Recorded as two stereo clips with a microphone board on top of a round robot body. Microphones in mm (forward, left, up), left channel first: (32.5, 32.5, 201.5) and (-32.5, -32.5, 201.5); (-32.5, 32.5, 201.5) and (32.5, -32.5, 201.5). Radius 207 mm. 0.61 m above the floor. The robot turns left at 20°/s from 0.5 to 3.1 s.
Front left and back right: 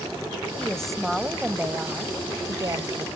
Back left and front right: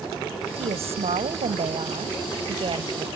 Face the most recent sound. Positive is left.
turn(degrees=-85)